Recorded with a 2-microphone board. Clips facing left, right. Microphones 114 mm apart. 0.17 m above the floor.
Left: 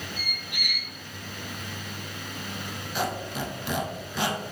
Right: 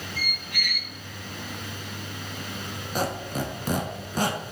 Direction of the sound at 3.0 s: 45° right (ahead or behind).